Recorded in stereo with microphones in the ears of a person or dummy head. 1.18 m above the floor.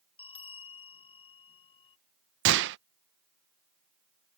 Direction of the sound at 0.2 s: 25° left (ahead or behind).